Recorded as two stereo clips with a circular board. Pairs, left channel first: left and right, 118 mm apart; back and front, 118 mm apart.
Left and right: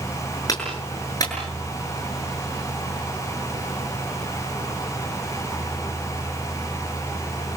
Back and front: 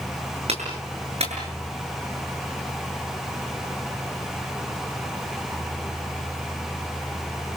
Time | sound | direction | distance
0.5 | a clap | 30° left | 7.5 m